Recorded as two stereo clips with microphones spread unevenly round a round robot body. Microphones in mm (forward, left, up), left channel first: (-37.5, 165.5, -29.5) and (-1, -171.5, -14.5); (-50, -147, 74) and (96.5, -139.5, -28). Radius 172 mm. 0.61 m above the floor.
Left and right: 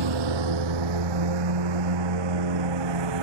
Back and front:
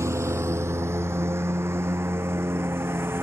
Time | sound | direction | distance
0.0 | a lawn mower | 75° right | ?